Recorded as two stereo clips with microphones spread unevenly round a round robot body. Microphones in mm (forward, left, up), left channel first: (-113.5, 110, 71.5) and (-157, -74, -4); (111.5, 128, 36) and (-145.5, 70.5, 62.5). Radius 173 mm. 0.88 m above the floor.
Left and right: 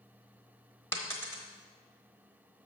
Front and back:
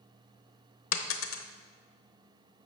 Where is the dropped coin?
30° left, 0.8 m.